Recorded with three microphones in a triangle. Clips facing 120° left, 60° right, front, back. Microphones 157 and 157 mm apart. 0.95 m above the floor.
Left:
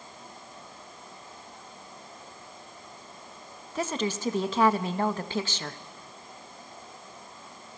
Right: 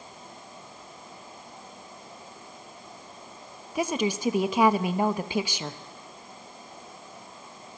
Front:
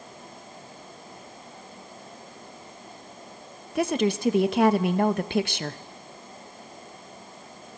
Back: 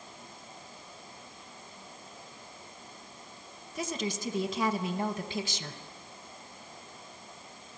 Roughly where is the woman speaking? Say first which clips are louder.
Right 3 dB, front 11 dB; ahead.